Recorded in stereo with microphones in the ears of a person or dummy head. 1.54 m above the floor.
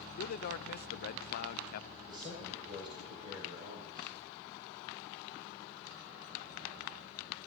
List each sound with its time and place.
0.2 s a man speaking: 55° left (ahead or behind), 0.7 m
2.0 s a man speaking: 25° right (ahead or behind), 8.5 m